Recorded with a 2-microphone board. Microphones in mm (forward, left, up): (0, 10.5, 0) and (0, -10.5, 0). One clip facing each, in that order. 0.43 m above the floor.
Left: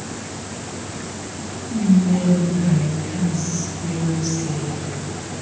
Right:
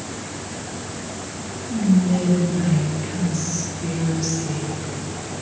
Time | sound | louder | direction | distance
1.7 | whispering | left 1 dB | 50° right (ahead or behind) | 1.9 m